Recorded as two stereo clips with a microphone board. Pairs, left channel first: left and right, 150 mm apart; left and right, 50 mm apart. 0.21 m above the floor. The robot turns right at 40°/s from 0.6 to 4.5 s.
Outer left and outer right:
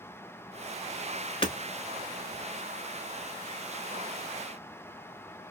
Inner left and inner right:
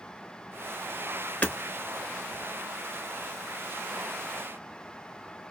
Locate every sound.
1.4 s hammering: 35° left (ahead or behind), 0.9 m; by 1.6 s 25° left (ahead or behind), 0.9 m